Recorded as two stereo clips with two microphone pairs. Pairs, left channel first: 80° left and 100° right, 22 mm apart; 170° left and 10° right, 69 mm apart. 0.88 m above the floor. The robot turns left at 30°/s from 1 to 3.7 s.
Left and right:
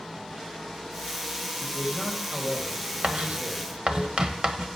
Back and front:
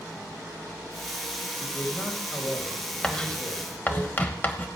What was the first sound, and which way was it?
A man speaking, 100° right.